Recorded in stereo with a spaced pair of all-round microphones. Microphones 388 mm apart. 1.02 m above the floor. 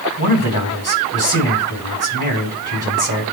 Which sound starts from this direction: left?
A man speaking, at 0.2 s.